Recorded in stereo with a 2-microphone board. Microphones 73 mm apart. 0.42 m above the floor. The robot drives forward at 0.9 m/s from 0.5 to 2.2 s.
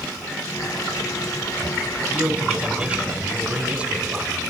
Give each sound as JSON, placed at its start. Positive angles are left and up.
{"t": 2.1, "sound": "a man speaking", "side_deg": -15, "distance_m": 4.0}